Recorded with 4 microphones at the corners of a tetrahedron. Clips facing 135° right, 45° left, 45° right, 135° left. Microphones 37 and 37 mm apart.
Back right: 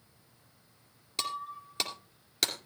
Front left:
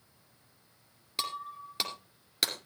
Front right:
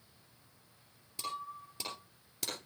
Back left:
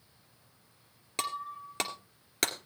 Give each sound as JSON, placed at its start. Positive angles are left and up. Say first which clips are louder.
{"t": 1.2, "sound": "breaking glass", "louder": "back right 1 dB, back left 5 dB", "azimuth_deg": 130, "distance_m": 2.0}